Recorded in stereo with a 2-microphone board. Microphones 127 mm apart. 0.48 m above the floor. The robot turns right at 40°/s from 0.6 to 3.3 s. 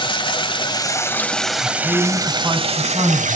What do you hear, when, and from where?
0.0 s running water: 145° left, 1.0 m; by 3.4 s 110° right, 1.0 m
1.6 s a man speaking: 165° left, 4 m; by 3.4 s 130° right, 4 m